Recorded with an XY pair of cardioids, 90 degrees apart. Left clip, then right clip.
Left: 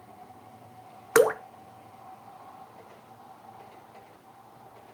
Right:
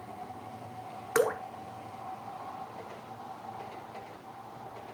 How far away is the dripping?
About 0.8 m.